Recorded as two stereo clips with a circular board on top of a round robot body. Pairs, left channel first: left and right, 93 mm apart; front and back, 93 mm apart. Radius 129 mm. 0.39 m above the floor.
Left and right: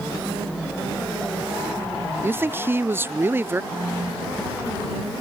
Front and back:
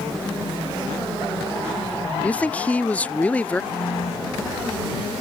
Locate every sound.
2.2 s a man speaking: 55° right
3.7 s a phone buzzing: 30° right